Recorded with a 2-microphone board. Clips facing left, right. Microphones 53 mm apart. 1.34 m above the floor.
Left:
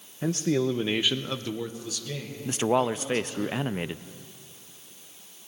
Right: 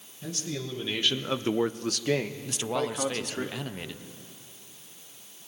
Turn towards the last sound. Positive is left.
turn(degrees=30)  # may be behind; listen again after turning